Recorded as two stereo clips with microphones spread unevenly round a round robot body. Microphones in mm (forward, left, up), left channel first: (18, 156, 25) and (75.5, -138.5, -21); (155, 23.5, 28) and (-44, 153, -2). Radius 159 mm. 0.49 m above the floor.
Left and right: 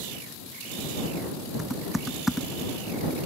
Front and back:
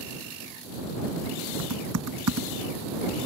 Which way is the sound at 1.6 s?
170° right.